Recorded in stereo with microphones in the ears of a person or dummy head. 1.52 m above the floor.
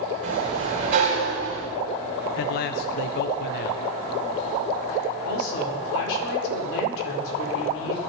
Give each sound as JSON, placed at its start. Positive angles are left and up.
{"t": 0.2, "sound": "a sliding door", "side_deg": -35, "distance_m": 6.5}
{"t": 2.4, "sound": "a man speaking", "side_deg": 45, "distance_m": 0.6}
{"t": 5.2, "sound": "a woman speaking", "side_deg": 75, "distance_m": 4.5}